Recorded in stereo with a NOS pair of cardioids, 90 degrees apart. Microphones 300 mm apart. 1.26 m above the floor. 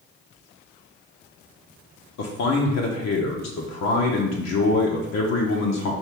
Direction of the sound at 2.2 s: 60° left.